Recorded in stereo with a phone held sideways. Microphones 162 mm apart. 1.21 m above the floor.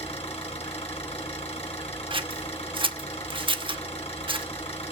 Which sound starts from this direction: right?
Scissors, at 2.1 s.